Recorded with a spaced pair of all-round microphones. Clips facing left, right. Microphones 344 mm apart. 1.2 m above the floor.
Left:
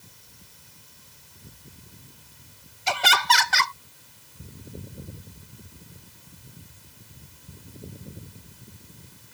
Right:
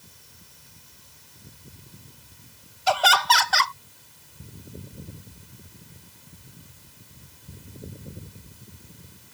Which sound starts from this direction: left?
Laughter, at 2.9 s.